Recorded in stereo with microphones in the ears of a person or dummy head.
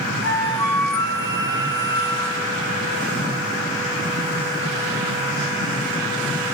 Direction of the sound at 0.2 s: 15° left (ahead or behind).